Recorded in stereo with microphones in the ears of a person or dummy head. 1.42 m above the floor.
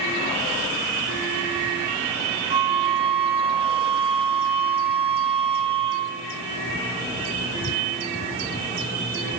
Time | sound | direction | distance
2.5 | a flute | 25° right (ahead or behind) | 0.9 m